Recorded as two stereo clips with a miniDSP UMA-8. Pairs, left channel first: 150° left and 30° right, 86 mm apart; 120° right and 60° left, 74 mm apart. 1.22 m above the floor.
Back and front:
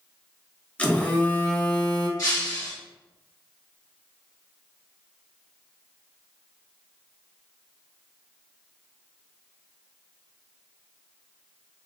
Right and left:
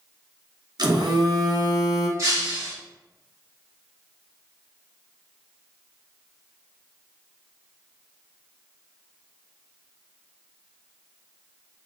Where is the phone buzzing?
75° left, 0.6 m.